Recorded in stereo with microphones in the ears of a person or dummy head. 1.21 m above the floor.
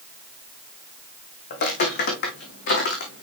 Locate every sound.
1.5 s footsteps: 60° left (ahead or behind), 3 m; by 3.2 s 65° left (ahead or behind), 2.5 m